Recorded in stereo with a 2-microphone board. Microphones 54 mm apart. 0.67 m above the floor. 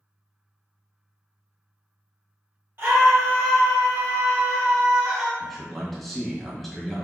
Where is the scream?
40° right (ahead or behind), 1.3 m; by 5.3 s 10° right (ahead or behind), 1.7 m.